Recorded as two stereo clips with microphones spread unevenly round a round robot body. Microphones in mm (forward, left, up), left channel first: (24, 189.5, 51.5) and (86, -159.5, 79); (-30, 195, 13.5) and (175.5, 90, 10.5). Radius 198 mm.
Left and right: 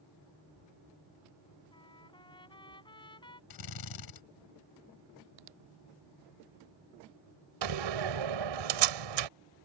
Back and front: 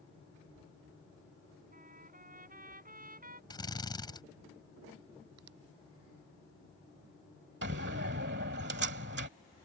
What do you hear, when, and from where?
1.7 s a trumpet: 25° left
3.5 s a drill: 80° left
5.4 s a finger snap: 65° right
7.6 s a door slam: 90° right